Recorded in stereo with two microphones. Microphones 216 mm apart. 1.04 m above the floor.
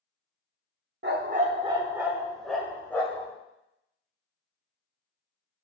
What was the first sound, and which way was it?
A dog barking, 55° right (ahead or behind).